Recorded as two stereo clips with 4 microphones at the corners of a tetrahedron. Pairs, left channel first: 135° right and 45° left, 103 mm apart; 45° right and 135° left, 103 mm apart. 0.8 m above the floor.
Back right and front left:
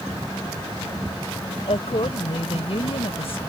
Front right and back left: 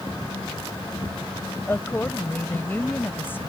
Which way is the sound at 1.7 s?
115° right.